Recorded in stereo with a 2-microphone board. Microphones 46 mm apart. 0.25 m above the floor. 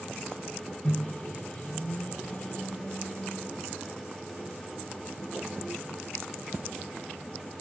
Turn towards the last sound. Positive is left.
turn(degrees=30)  # may be behind; listen again after turning